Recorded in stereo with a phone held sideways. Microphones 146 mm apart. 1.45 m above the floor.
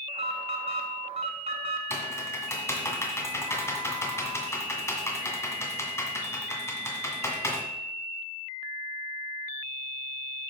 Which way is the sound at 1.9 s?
20° left (ahead or behind).